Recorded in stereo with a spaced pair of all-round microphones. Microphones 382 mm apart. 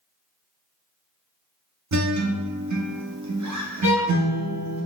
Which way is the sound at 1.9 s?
45° right (ahead or behind).